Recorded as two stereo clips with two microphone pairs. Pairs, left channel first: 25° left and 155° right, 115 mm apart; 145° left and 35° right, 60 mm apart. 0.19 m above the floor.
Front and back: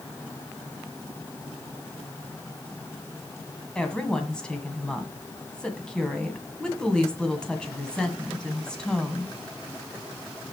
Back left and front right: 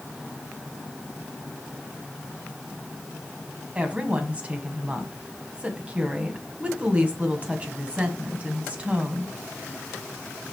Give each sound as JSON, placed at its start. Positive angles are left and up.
{"t": 3.8, "sound": "a woman speaking", "azimuth_deg": -45, "distance_m": 1.7}